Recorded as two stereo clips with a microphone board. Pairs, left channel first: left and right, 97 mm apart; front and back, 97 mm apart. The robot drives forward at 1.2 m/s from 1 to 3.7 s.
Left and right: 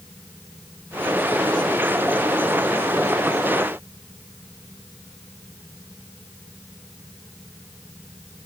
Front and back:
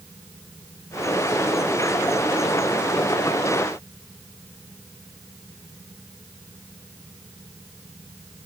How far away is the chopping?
I don't hear chopping.